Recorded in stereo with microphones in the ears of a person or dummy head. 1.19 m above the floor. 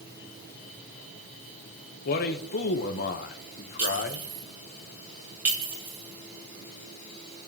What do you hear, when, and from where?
2.0 s a man speaking: 55° left (ahead or behind), 1.3 m
3.8 s a clink: 10° right (ahead or behind), 4.5 m